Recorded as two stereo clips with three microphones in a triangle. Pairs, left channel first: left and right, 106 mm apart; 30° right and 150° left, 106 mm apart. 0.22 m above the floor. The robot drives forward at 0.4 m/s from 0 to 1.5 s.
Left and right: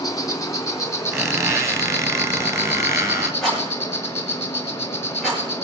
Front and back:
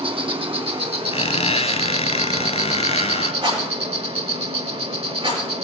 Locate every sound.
0.0 s an insect: 135° left, 1.0 m; by 5.6 s 155° left, 1.5 m
1.1 s a squeak: 25° right, 1.4 m
3.4 s a rattle: straight behind, 5 m